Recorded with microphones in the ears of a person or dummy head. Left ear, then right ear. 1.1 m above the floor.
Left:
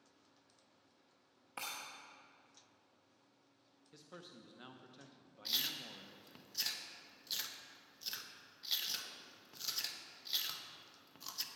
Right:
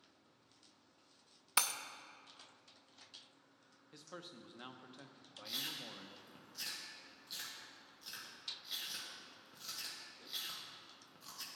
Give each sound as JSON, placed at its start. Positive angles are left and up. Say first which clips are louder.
{"t": 1.6, "sound": "breaking glass", "louder": "right 9 dB", "side_deg": -60, "distance_m": 0.6}
{"t": 3.9, "sound": "a man speaking", "louder": "right 3 dB", "side_deg": -15, "distance_m": 0.6}
{"t": 5.5, "sound": "chewing", "louder": "left 4 dB", "side_deg": 30, "distance_m": 1.1}